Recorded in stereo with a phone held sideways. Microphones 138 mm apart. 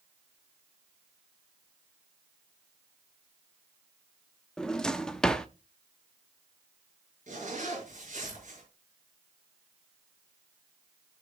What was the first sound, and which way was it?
A drawer, 5° left (ahead or behind).